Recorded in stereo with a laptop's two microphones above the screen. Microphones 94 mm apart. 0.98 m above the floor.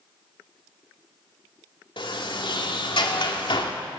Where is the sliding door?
60° left (ahead or behind), 2.5 m.